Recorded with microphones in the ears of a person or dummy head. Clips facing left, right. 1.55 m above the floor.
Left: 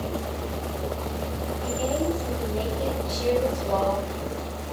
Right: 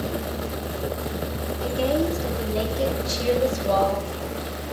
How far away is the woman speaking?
About 6.5 m.